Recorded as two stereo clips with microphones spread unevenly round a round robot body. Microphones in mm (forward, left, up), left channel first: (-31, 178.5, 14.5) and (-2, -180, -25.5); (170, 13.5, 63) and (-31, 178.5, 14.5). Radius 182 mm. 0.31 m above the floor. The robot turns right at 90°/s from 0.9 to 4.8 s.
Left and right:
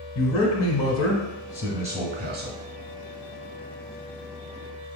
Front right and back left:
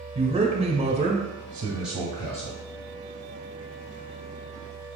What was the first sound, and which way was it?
A man speaking, 120° left.